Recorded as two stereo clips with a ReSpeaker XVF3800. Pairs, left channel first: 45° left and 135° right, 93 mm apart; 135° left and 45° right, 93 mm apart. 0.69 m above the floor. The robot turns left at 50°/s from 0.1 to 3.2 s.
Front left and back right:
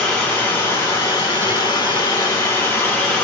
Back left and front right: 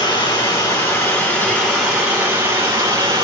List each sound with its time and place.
0.0 s running water: 125° left, 1.1 m; by 3.2 s 30° right, 1.1 m